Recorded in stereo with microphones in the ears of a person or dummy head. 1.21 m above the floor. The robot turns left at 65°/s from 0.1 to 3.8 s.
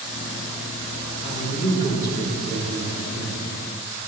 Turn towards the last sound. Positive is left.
turn(degrees=-90)